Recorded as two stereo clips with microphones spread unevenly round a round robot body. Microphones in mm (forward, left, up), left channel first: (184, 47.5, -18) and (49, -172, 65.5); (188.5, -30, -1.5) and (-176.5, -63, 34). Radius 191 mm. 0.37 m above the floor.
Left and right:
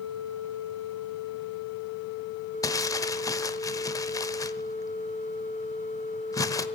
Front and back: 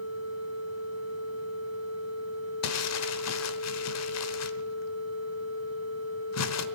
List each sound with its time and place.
2.6 s crumpling: 5° left, 1.1 m